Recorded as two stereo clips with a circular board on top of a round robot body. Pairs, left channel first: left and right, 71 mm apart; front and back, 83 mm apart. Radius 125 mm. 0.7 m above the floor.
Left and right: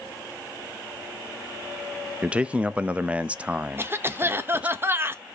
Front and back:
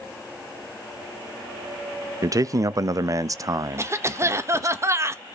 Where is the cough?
135° right, 0.8 m.